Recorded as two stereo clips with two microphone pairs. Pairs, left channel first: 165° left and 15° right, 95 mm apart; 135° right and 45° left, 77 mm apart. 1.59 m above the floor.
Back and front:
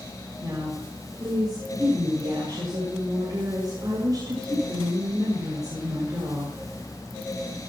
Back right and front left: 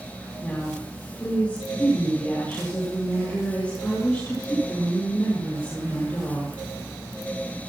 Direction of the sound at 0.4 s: 60° right.